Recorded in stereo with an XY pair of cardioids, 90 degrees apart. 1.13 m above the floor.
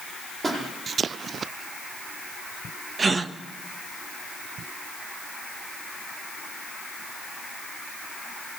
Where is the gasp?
40° right, 1.4 m.